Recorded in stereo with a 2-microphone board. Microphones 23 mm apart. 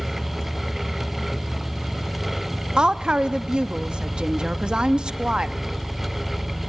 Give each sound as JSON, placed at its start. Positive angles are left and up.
{"t": 0.0, "sound": "an engine running", "side_deg": 60, "distance_m": 9.0}
{"t": 2.8, "sound": "a woman speaking", "side_deg": -40, "distance_m": 0.7}